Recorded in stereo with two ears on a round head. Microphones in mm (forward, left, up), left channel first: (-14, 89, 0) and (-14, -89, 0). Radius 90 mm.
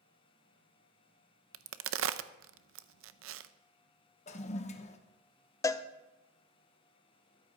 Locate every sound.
1.5 s a crack: 70° right (ahead or behind), 0.6 m
4.3 s a toilet flushing: 35° left (ahead or behind), 1.0 m
5.6 s a cowbell: 15° left (ahead or behind), 0.6 m